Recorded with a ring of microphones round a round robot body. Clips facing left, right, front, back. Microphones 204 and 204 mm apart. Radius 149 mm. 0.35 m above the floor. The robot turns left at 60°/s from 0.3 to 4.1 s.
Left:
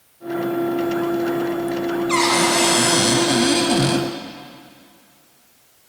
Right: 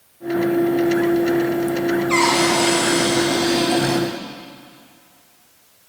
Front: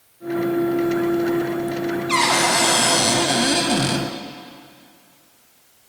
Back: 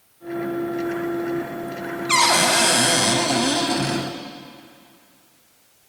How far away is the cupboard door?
About 1.1 m.